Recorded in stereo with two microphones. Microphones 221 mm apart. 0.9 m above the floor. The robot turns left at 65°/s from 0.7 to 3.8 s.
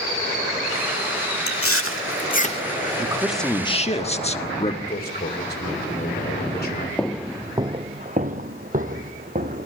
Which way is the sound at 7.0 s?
5° left (ahead or behind).